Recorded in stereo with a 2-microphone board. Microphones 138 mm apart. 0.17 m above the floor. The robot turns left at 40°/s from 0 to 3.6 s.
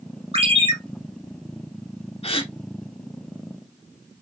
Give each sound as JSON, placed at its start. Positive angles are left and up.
{"t": 0.3, "sound": "a ringtone", "side_deg": -45, "distance_m": 1.4}
{"t": 2.2, "sound": "a gasp", "side_deg": 45, "distance_m": 0.7}